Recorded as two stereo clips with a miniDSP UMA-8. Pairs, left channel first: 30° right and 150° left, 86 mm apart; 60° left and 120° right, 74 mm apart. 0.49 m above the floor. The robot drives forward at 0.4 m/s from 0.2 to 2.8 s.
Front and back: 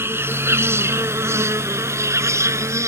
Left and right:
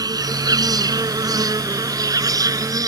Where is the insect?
150° right; by 2.9 s 155° right.